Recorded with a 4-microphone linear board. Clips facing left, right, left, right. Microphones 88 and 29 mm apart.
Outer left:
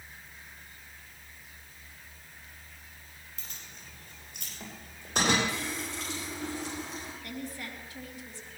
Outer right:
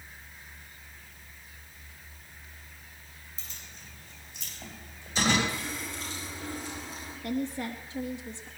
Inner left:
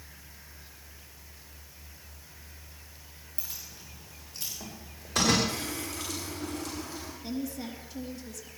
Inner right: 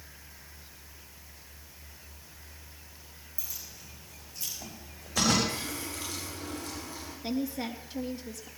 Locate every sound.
3.4 s keys jangling: 60° left (ahead or behind), 9.5 m; by 5.4 s 65° left (ahead or behind), 11.5 m
5.5 s a running tap: 85° left, 9 m
7.2 s a woman speaking: 25° right (ahead or behind), 3.5 m